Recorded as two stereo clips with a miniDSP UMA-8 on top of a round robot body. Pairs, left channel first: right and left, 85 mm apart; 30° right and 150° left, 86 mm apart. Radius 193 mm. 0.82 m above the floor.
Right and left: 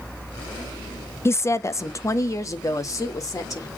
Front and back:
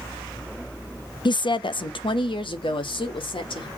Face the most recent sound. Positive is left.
turn(degrees=-40)